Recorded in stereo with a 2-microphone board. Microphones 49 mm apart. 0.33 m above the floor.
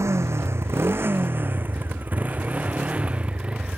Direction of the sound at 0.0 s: 70° right (ahead or behind).